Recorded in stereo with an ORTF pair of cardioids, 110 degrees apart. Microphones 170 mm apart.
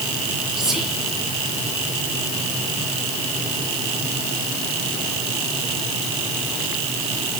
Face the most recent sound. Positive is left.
turn(degrees=-5)